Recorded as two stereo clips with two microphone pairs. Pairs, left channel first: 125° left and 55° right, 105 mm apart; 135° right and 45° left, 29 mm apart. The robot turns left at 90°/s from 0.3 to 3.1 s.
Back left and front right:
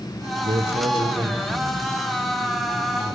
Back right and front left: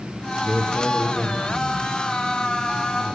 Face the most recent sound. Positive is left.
turn(degrees=85)